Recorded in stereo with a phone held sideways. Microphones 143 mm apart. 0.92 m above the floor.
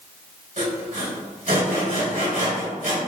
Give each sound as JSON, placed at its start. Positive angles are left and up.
{"t": 0.6, "sound": "sawing", "side_deg": -70, "distance_m": 1.8}